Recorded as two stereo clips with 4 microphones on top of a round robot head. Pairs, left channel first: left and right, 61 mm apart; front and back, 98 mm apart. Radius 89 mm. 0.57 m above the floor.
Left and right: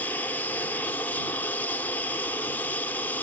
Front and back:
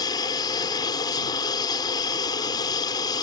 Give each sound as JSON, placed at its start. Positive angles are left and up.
{"t": 0.0, "sound": "an aircraft", "azimuth_deg": 30}